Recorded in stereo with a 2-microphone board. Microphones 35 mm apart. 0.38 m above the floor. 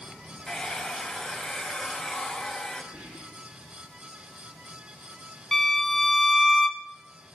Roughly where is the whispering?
Right.